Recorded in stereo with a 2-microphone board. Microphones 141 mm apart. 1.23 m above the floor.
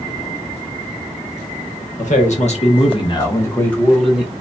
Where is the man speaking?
60° left (ahead or behind), 1.3 m; by 4.3 s 10° right (ahead or behind), 1.1 m.